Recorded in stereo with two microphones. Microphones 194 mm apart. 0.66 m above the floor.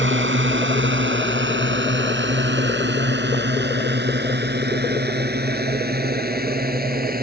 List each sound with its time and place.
0.0 s a drone: 80° right; by 7.2 s 50° right (ahead or behind)